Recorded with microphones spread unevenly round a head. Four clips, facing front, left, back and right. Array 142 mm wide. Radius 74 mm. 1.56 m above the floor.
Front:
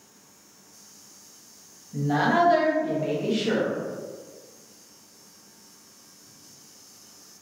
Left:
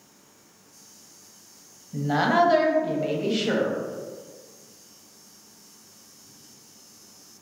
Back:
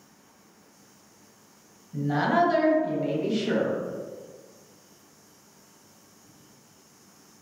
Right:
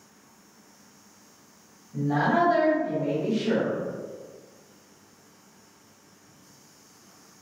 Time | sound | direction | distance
1.9 | a woman speaking | 70° left | 1.2 m